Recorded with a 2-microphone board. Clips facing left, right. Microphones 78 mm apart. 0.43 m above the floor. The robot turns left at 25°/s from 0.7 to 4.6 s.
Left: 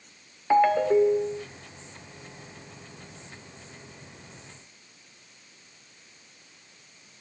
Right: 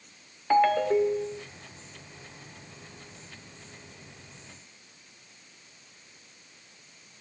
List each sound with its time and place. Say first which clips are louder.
0.5 s a ringtone: left 2 dB; 10° left (ahead or behind), 0.7 m; by 1.4 s 20° left (ahead or behind), 0.7 m